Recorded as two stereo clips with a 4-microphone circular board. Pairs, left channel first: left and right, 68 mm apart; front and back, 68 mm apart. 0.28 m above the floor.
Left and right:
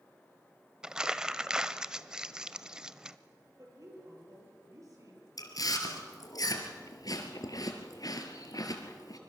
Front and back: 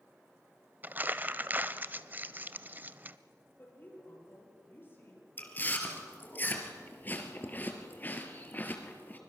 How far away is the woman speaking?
About 6 m.